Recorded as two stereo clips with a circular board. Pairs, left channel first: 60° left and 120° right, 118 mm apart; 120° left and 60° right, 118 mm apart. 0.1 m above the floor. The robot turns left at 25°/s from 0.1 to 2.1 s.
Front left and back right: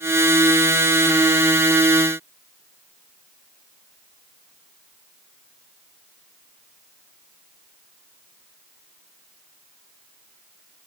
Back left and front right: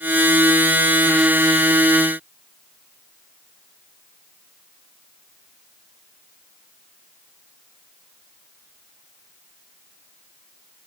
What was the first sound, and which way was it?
Only background noise.